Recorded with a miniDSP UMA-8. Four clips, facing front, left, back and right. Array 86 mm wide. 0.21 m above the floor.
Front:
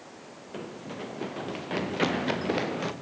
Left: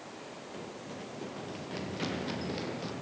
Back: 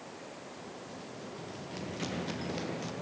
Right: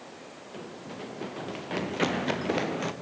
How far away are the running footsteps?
About 2 m.